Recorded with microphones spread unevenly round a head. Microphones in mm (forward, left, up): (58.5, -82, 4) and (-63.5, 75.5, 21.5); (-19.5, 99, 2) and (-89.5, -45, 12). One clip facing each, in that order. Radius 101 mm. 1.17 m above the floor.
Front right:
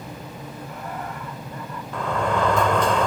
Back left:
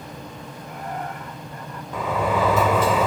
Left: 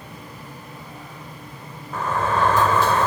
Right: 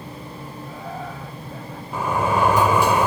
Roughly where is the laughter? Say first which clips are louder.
Back left 2 dB, right 7 dB; right.